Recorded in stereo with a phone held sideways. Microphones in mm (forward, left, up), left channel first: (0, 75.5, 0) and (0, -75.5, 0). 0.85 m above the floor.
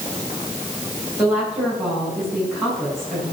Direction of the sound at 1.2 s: Centre (ahead or behind).